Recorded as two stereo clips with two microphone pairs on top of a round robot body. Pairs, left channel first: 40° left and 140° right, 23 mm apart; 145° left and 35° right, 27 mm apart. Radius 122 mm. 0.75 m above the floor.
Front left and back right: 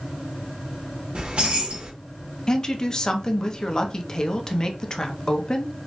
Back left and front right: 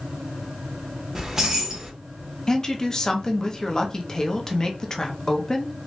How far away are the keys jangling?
About 1.4 m.